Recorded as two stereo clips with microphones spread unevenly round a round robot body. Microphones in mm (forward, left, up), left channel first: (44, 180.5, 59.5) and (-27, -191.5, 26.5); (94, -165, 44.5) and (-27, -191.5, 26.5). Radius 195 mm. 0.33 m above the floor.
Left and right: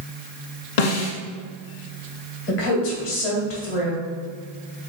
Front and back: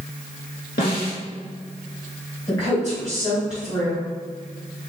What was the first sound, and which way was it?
A snare drum, 65° left.